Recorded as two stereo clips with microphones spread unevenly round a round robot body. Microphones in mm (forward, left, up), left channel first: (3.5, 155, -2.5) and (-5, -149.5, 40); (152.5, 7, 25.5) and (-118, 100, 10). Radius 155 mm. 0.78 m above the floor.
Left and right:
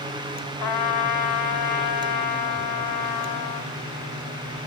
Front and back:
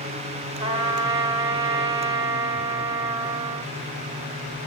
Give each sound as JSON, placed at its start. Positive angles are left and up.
{"t": 0.6, "sound": "a trumpet", "azimuth_deg": 85, "distance_m": 3.5}